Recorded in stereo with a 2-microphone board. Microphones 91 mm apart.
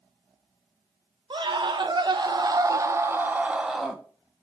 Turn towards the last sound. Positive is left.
turn(degrees=5)  # may be behind; listen again after turning